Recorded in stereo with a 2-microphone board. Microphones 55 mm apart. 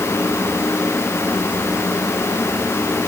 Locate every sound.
Only background noise.